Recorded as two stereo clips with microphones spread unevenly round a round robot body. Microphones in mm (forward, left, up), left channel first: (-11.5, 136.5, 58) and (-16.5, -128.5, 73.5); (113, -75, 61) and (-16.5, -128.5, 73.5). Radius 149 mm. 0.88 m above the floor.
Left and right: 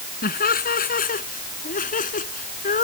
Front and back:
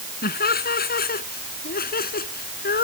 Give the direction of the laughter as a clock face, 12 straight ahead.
11 o'clock.